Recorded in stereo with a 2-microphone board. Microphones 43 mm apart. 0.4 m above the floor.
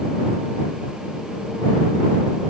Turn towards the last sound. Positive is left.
No sound to turn to.